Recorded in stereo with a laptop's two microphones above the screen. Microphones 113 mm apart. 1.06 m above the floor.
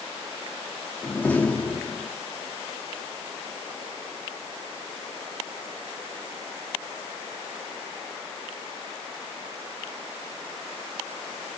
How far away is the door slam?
About 1.3 m.